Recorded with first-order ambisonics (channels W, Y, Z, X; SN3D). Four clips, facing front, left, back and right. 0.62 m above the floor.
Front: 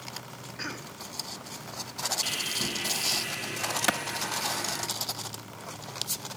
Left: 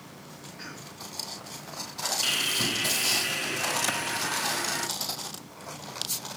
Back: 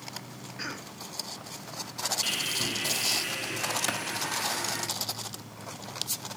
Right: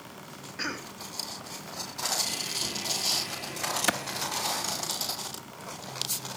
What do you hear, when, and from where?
0.6 s a cough: 85° right, 1.0 m
2.2 s sawing: 95° left, 3.5 m
3.9 s a clap: 40° right, 0.6 m